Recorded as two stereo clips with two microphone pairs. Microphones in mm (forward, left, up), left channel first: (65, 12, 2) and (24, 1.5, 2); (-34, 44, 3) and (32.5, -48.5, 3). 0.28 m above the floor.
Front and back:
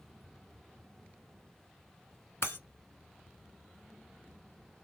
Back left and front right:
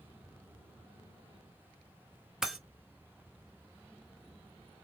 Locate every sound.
2.4 s breaking glass: 30° left, 0.7 m